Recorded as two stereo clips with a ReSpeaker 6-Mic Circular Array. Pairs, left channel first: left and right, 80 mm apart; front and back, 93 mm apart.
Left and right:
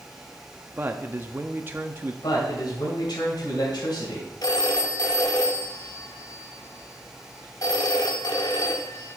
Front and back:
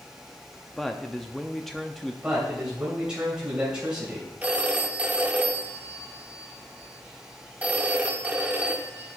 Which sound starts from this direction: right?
A man speaking, at 0.8 s.